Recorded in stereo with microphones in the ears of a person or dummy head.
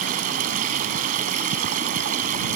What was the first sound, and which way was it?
Running water, 45° right (ahead or behind).